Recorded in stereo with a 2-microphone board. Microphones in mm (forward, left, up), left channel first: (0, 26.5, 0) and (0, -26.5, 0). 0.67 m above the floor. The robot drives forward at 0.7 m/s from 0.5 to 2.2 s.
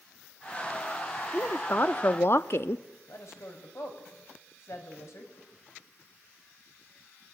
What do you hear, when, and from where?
1.3 s a woman speaking: 35° left (ahead or behind), 1.1 m; by 2.9 s 50° left (ahead or behind), 0.8 m
3.1 s a woman speaking: 65° left (ahead or behind), 4.5 m